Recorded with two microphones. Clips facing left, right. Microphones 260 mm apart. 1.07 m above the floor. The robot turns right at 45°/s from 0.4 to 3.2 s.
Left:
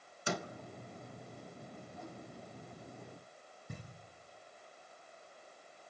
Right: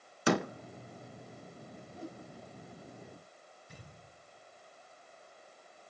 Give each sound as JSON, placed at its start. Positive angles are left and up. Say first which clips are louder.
{"t": 0.3, "sound": "a door slam", "louder": "right 10 dB", "side_deg": -70, "distance_m": 0.6}
{"t": 1.9, "sound": "a whoosh", "louder": "right 6 dB", "side_deg": -30, "distance_m": 1.9}
{"t": 3.7, "sound": "knocking", "louder": "left 6 dB", "side_deg": 55, "distance_m": 8.0}